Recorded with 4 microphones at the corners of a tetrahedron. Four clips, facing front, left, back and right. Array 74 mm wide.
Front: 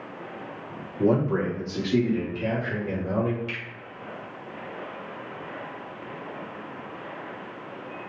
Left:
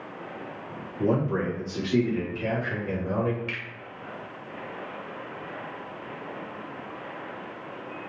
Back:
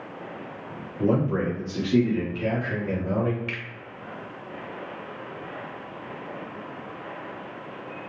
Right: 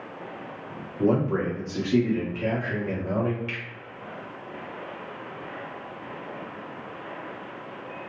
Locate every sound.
1.0 s a man speaking: 40° right, 1.4 m; by 3.4 s 155° right, 1.3 m
3.5 s a finger snap: 155° left, 1.9 m